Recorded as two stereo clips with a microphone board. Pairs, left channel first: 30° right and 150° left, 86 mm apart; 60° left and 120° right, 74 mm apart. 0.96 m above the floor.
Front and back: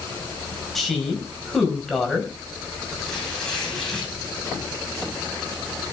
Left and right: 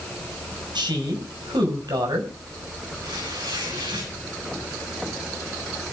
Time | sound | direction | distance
0.8 | a woman speaking | 120° right | 5 m
3.0 | tearing paper | 115° right | 7.5 m